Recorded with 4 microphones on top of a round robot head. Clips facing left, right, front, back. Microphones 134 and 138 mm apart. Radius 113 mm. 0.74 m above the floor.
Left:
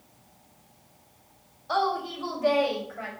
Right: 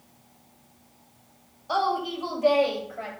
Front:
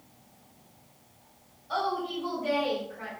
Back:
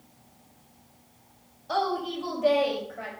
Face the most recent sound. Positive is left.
turn(degrees=-150)